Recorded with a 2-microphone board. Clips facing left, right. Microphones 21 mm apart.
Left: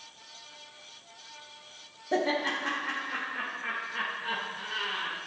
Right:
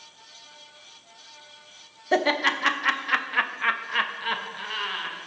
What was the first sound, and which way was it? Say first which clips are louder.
Laughter: right 6 dB; 50° right (ahead or behind).